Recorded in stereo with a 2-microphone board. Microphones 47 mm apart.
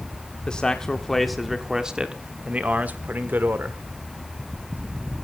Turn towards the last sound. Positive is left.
turn(degrees=-50)  # may be behind; listen again after turning